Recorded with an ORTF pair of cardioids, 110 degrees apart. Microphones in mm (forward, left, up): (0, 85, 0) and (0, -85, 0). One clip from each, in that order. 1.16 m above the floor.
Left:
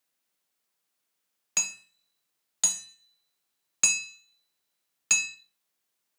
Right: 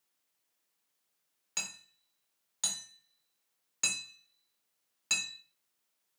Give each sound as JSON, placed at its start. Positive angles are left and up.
{"t": 1.6, "sound": "hammering", "azimuth_deg": 40, "distance_m": 0.7}